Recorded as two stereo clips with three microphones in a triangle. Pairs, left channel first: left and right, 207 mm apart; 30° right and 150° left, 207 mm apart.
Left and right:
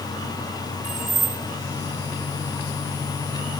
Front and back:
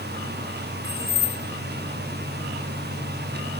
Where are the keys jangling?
40° right, 9.5 m.